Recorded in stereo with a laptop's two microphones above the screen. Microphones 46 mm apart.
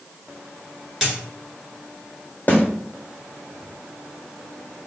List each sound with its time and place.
1.0 s a dropped coin: 10° right (ahead or behind), 1.4 m
2.5 s a snare drum: 40° left (ahead or behind), 0.8 m